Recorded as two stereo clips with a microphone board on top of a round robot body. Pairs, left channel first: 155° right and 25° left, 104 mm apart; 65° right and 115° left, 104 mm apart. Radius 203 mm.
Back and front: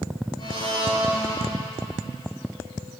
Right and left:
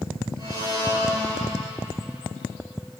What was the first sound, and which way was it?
A blender, 160° left.